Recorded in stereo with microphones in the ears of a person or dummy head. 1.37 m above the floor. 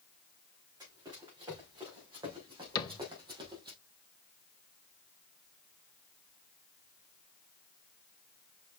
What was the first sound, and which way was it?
Running footsteps, 15° right (ahead or behind).